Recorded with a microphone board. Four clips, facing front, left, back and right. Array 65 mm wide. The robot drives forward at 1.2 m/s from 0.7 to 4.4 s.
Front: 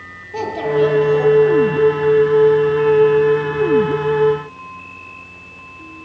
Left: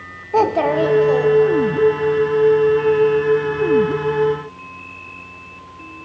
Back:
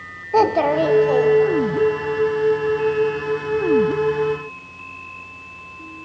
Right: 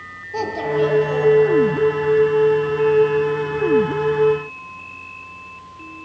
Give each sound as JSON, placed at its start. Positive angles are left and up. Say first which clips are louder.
{"t": 0.3, "sound": "a child speaking", "louder": "left 6 dB, back 2 dB", "azimuth_deg": 135, "distance_m": 0.7}